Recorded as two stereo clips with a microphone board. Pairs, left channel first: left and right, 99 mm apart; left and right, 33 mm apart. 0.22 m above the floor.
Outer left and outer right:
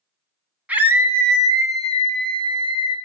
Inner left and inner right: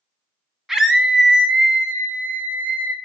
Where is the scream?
15° right (ahead or behind), 1.4 m; by 3.0 s 60° right (ahead or behind), 2 m.